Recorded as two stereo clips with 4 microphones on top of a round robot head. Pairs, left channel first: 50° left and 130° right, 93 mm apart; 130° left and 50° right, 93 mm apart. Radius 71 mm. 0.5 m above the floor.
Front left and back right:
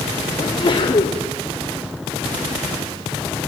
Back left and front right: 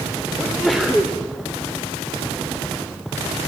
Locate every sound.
0.4 s a sneeze: 40° left, 2.5 m